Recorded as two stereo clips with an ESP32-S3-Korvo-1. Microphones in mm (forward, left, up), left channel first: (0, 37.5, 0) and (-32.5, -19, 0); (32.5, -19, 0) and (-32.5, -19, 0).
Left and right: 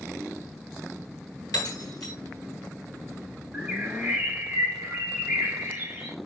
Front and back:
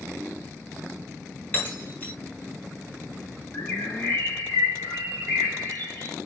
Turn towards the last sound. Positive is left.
turn(degrees=-50)